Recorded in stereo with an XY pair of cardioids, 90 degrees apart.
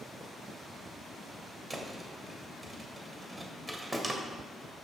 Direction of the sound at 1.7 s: 20° right.